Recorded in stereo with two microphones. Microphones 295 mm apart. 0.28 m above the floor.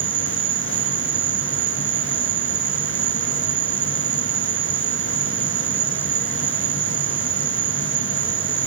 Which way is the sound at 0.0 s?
60° right (ahead or behind).